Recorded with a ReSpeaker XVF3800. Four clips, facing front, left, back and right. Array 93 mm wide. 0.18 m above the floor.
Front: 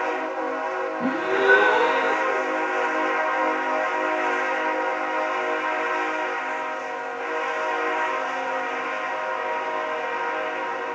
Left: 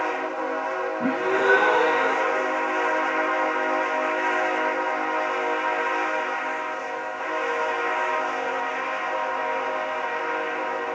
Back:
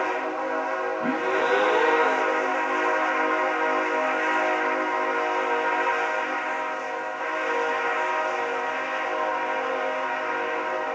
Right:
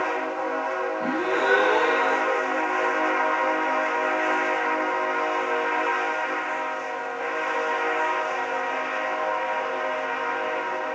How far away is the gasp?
About 6 m.